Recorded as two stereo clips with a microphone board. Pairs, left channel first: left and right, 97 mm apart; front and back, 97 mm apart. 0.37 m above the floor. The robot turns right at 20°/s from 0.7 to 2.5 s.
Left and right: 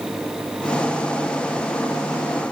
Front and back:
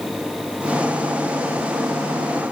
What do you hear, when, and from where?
Only background noise.